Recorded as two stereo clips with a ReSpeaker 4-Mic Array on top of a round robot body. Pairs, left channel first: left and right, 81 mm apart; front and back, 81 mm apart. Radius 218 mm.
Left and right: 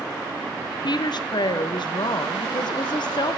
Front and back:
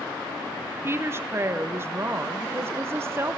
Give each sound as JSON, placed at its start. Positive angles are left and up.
{"t": 0.8, "sound": "a woman speaking", "azimuth_deg": 120, "distance_m": 0.7}